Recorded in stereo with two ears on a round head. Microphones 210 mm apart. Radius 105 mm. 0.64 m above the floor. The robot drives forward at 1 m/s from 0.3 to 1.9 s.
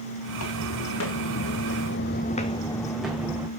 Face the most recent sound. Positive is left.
turn(degrees=-10)  # may be behind; listen again after turning